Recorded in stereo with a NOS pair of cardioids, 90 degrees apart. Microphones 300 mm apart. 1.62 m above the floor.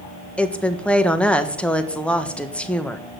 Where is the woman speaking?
5° left, 1.2 m.